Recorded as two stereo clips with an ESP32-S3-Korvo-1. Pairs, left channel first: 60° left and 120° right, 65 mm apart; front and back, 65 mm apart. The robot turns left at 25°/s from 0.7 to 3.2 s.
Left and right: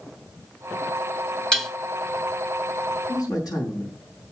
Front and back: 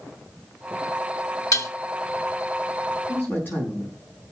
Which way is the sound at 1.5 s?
20° right.